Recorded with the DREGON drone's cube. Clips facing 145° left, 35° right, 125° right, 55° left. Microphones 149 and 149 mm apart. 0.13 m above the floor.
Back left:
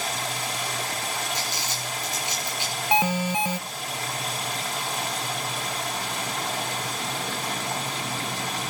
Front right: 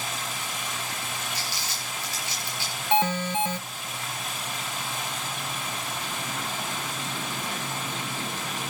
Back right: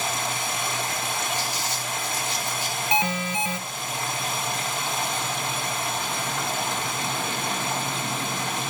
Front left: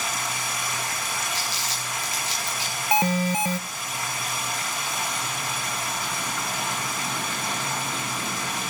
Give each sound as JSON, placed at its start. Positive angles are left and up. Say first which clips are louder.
{"t": 0.0, "sound": "running water", "louder": "back left 4 dB, back right 3 dB", "azimuth_deg": 170, "distance_m": 6.0}
{"t": 1.3, "sound": "crumpling", "louder": "back left 4 dB, back right 3 dB", "azimuth_deg": 70, "distance_m": 9.5}
{"t": 2.9, "sound": "an alarm", "louder": "back left 1 dB, front left 4 dB", "azimuth_deg": 75, "distance_m": 0.9}